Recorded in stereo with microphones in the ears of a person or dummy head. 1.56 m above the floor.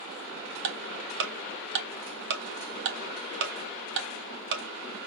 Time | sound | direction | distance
0.6 | ticking | 60° right (ahead or behind) | 1.5 m